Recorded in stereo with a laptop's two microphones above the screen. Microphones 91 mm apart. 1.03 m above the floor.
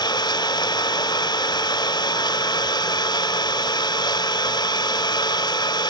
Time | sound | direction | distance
0.0 | an engine running | 55° left (ahead or behind) | 3 m